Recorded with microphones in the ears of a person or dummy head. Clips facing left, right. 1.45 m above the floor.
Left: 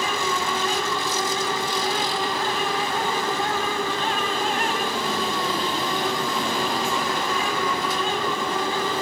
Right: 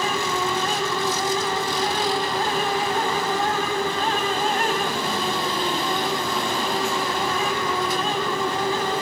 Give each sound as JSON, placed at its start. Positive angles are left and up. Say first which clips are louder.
{"t": 0.0, "sound": "a fan", "louder": "right 2 dB", "side_deg": -40, "distance_m": 2.5}